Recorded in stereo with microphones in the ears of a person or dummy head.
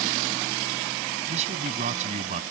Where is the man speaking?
40° right (ahead or behind); by 2.4 s 45° right (ahead or behind).